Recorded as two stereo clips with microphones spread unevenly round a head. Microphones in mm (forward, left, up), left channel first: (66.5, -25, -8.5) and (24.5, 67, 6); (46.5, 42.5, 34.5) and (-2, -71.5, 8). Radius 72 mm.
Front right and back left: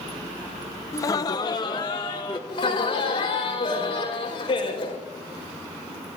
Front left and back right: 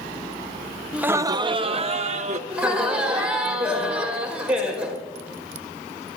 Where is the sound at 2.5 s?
35° right, 4.5 m.